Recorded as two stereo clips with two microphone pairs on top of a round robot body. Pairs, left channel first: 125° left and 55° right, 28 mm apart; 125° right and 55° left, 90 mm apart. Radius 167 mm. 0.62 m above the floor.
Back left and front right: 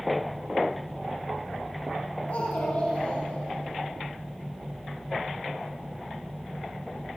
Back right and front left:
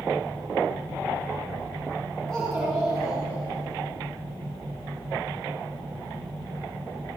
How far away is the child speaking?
About 6.5 m.